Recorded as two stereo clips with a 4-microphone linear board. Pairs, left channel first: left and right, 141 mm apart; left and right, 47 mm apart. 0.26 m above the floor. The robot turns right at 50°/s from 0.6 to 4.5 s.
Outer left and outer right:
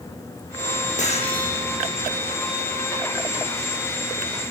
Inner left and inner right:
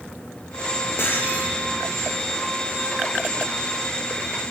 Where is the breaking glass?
55° left (ahead or behind), 6 m; by 1.5 s 25° left (ahead or behind), 6 m.